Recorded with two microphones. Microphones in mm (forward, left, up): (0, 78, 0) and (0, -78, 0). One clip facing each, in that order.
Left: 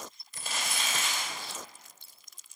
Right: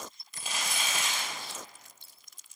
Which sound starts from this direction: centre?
Crumpling, at 0.3 s.